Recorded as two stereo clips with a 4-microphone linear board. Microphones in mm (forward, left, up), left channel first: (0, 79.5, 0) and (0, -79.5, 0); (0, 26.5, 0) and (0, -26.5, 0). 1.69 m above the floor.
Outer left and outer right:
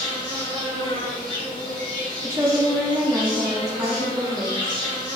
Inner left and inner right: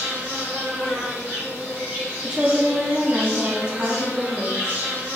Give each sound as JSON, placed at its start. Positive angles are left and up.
{"t": 0.0, "sound": "an insect", "side_deg": -30, "distance_m": 1.6}
{"t": 2.2, "sound": "a woman speaking", "side_deg": -15, "distance_m": 0.6}